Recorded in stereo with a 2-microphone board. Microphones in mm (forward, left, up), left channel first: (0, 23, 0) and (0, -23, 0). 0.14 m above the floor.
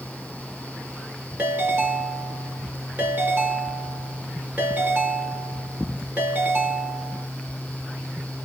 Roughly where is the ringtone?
Right.